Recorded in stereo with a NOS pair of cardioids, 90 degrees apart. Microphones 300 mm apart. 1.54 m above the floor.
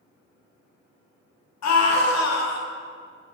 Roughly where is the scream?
Ahead left.